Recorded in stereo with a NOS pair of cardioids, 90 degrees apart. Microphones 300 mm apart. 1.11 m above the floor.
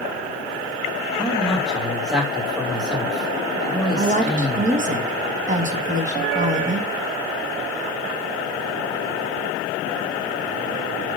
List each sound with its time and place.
1.2 s a man speaking: 5° right, 1.6 m
4.0 s a woman speaking: 25° right, 1.3 m